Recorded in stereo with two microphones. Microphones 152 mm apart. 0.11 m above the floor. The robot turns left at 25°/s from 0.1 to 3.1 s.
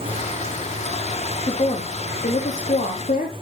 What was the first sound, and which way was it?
A woman speaking, 145° left.